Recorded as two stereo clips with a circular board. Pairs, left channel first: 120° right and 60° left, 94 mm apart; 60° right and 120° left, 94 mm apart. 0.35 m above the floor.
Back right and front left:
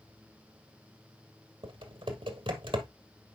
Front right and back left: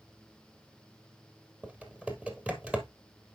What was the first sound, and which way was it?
Typing on a keyboard, 40° left.